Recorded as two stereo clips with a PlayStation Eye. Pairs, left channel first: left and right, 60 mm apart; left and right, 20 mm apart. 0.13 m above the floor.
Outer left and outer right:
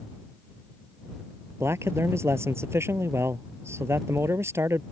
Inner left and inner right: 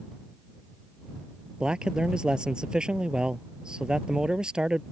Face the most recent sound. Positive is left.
turn(degrees=-45)  # may be behind; listen again after turning